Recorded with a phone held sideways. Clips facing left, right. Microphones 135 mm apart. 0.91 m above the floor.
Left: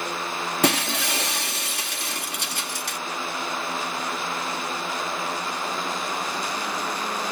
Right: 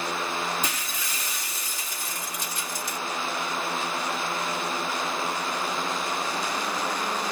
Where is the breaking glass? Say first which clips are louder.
Left 11 dB; 65° left (ahead or behind).